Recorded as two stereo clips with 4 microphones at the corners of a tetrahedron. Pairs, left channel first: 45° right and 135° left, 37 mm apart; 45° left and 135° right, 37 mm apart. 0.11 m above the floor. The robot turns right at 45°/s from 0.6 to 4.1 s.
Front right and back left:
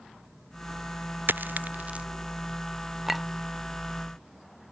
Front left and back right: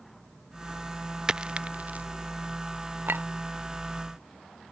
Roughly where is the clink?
Behind right.